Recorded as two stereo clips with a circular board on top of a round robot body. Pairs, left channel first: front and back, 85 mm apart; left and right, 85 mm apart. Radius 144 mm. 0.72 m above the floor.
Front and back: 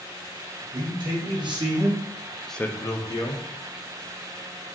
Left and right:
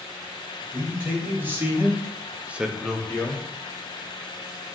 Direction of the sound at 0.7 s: 155° right.